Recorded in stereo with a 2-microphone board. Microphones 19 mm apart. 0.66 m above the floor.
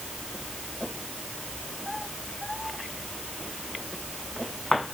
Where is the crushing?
No crushing in this recording.